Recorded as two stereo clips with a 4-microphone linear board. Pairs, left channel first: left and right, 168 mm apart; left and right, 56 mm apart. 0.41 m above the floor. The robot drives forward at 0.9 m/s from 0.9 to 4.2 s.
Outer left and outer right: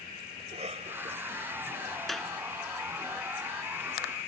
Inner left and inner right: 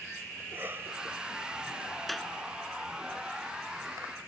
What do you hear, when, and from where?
0.4 s a cough: 40° right (ahead or behind); by 2.0 s 30° right (ahead or behind)
2.1 s a clap: centre (ahead or behind)